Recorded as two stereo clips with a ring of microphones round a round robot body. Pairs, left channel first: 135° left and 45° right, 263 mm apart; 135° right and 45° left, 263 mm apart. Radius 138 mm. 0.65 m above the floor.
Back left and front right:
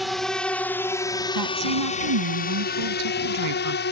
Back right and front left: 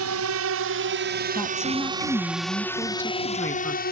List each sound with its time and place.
0.0 s a drone: 45° left; by 3.9 s straight behind
1.4 s a woman speaking: 55° right